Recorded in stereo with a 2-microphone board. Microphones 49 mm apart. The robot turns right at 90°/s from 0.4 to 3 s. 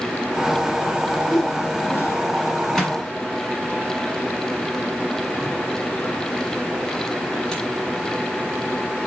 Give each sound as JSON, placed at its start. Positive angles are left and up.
{"t": 1.2, "sound": "a whoosh", "azimuth_deg": 0, "distance_m": 0.7}
{"t": 2.8, "sound": "a microwave", "side_deg": 5, "distance_m": 1.3}